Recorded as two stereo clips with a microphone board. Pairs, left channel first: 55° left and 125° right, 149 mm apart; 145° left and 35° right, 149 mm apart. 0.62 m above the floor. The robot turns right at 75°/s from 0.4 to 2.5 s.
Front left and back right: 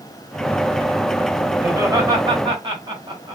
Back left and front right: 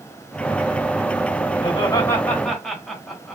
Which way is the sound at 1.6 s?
170° left.